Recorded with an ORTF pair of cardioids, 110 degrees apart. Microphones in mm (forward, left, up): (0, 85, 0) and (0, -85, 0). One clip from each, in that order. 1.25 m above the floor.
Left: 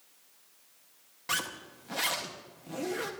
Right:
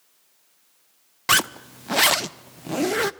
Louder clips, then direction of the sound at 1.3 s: Right 13 dB; 65° right.